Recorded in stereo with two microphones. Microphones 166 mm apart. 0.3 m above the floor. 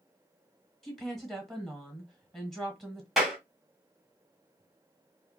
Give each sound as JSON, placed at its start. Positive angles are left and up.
{"t": 0.8, "sound": "a woman speaking", "side_deg": 0, "distance_m": 1.1}
{"t": 3.2, "sound": "a clap", "side_deg": 0, "distance_m": 1.1}